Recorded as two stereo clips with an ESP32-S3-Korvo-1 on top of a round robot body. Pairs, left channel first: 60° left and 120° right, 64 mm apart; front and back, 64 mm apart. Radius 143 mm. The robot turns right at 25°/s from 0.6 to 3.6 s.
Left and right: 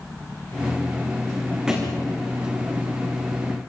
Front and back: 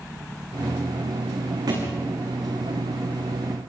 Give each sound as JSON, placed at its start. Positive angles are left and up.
{"t": 1.7, "sound": "a thud", "azimuth_deg": 160, "distance_m": 5.5}